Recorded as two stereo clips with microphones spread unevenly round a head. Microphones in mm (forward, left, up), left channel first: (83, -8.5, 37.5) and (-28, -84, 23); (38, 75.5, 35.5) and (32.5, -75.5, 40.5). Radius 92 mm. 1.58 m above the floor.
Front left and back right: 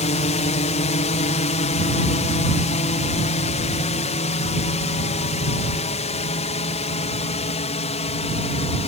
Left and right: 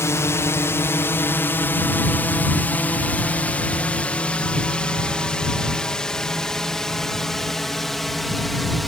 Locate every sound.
0.0 s a drone: 20° left; by 8.9 s straight ahead